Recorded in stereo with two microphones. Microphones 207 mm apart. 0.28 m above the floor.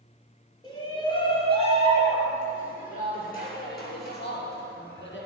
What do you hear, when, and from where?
0.6 s a shout: 20° left (ahead or behind), 4.5 m; by 5.3 s 60° left (ahead or behind), 5 m